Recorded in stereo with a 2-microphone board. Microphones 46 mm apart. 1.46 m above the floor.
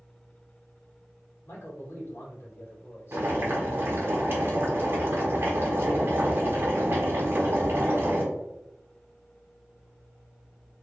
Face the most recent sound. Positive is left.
turn(degrees=-50)  # may be behind; listen again after turning